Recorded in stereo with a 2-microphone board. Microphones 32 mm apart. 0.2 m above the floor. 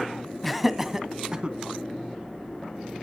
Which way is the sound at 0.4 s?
5° left (ahead or behind).